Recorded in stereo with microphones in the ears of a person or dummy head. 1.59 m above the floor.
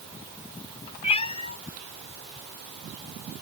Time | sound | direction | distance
1.0 | a cat meowing | 30° left (ahead or behind) | ?